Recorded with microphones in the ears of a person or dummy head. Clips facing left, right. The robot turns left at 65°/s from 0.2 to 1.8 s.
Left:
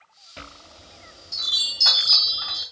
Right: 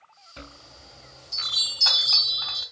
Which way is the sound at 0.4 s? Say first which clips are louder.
Left 1 dB; 140° right.